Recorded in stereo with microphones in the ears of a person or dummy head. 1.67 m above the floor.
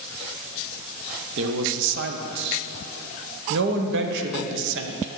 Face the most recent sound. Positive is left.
turn(degrees=-60)  # may be behind; listen again after turning